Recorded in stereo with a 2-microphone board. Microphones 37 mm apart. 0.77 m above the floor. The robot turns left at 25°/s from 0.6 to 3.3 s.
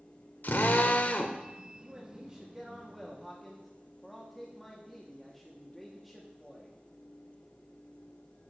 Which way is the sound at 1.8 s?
145° right.